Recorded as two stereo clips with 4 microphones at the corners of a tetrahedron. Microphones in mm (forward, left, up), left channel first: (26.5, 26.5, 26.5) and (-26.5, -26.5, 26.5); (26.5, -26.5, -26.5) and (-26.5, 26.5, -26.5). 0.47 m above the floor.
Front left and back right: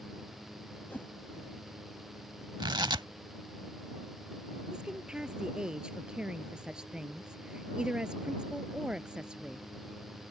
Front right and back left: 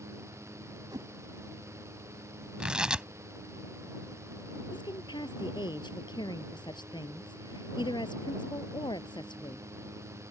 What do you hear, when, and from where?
0.9 s a whoosh: 110° left
2.6 s tearing paper: 145° right
4.7 s a woman speaking: 55° right